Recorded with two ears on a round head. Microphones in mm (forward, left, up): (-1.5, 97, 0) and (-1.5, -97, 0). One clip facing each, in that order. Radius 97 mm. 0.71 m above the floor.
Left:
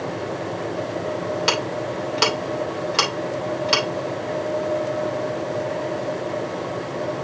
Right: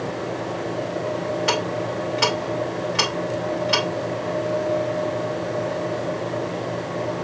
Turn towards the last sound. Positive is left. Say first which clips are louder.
# right 1 dB
turn(degrees=55)  # may be behind; listen again after turning